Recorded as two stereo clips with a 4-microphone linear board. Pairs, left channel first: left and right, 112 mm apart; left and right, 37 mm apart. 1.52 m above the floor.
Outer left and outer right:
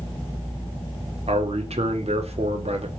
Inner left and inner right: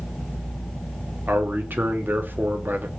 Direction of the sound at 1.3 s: 70° right (ahead or behind).